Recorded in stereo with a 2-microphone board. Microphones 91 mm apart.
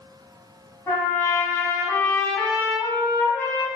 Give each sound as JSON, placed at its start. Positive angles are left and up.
{"t": 0.9, "sound": "a trumpet", "side_deg": 25, "distance_m": 2.0}